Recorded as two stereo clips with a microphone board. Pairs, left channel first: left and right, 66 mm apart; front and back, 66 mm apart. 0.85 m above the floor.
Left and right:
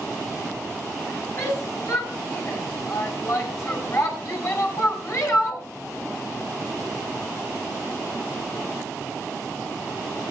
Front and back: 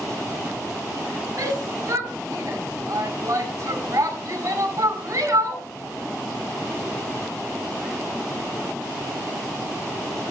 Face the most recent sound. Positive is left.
turn(degrees=130)